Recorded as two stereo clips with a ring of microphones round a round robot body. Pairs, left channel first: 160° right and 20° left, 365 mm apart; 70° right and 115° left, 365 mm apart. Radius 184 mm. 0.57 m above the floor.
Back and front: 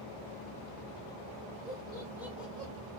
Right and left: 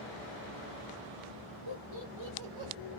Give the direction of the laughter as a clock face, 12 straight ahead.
9 o'clock.